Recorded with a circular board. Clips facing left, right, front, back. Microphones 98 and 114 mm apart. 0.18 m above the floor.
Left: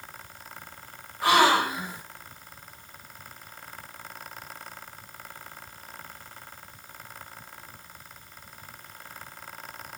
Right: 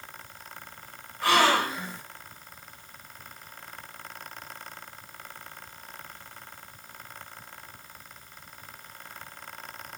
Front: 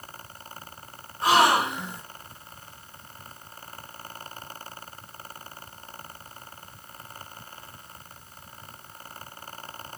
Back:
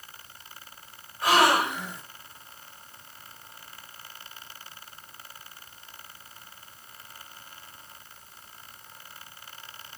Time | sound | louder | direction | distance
1.2 | a gasp | left 2 dB, front 1 dB | 35° left | 1.7 m